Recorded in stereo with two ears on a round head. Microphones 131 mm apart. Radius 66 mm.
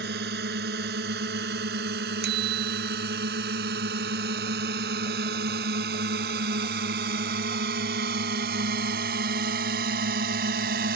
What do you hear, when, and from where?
0.0 s a drone: 75° right (ahead or behind); by 11.0 s 70° right (ahead or behind)
2.2 s a bicycle bell: 85° right